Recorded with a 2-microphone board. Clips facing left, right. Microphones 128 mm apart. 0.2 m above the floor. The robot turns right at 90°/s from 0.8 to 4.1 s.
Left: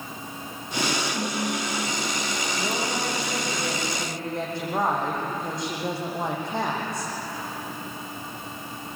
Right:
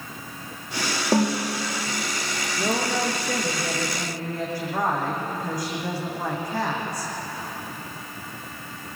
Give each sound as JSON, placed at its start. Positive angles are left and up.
{"t": 1.1, "sound": "a snare drum", "azimuth_deg": -125, "distance_m": 7.0}
{"t": 2.6, "sound": "a woman speaking", "azimuth_deg": -115, "distance_m": 9.0}